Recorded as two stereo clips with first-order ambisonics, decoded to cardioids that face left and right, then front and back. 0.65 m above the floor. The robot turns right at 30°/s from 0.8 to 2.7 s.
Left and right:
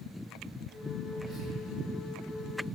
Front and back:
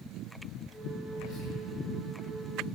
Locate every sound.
1.1 s whispering: 15° left, 2.5 m; by 1.5 s 25° left, 2.5 m